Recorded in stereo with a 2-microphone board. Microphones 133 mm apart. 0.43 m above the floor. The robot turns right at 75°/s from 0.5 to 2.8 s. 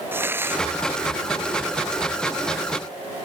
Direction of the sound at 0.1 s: 15° right (ahead or behind).